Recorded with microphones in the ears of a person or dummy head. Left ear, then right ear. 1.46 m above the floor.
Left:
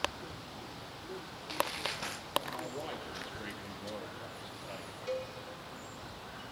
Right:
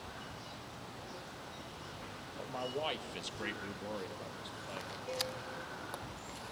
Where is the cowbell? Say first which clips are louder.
Left 2 dB; 50° left (ahead or behind), 6.5 m.